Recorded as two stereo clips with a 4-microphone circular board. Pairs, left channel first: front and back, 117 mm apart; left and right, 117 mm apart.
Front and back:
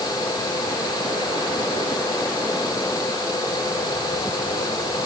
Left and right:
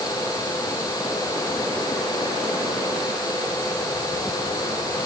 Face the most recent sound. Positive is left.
No sound to turn to.